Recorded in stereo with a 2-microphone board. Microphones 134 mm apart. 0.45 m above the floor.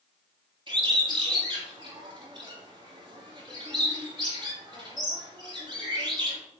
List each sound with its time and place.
0.7 s a bird: 35° right (ahead or behind), 3 m